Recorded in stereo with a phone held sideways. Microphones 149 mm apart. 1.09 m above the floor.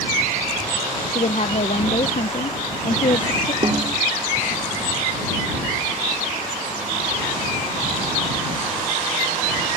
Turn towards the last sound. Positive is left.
turn(degrees=-35)  # may be behind; listen again after turning